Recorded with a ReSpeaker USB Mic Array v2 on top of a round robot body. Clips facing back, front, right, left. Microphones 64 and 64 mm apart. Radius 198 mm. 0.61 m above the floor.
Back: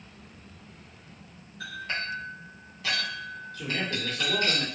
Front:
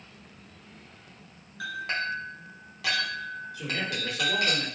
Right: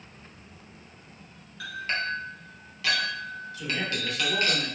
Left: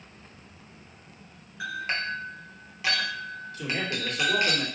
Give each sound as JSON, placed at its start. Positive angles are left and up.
{"t": 1.6, "sound": "a clink", "azimuth_deg": 20, "distance_m": 1.3}
{"t": 3.5, "sound": "a man speaking", "azimuth_deg": 75, "distance_m": 2.0}